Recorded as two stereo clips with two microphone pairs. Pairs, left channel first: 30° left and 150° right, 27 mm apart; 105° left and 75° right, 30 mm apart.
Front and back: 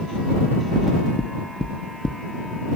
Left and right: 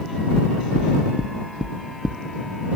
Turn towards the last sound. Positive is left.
turn(degrees=-25)